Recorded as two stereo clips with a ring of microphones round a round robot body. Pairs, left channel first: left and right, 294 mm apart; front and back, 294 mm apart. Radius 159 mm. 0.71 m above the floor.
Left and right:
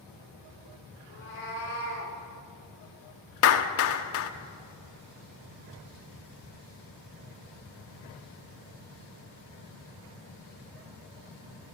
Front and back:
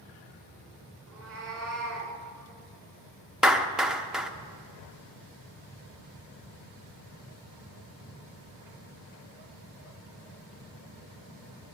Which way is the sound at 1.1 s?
140° left.